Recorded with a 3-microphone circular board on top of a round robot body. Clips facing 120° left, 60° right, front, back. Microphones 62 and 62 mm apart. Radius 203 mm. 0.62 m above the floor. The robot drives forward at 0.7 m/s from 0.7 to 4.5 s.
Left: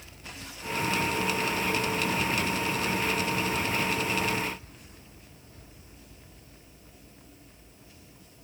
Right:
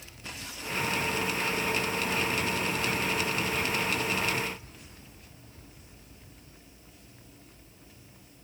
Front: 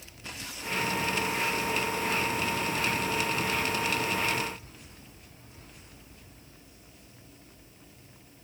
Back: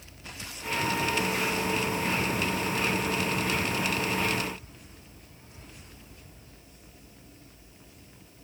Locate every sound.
Only background noise.